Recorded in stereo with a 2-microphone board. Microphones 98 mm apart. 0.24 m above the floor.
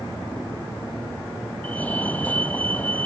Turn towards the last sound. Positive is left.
turn(degrees=15)  # may be behind; listen again after turning